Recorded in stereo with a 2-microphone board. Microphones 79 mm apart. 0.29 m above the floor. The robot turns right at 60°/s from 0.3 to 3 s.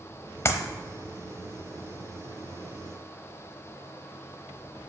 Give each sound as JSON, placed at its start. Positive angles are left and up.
{"t": 0.5, "sound": "a clap", "side_deg": 35, "distance_m": 0.9}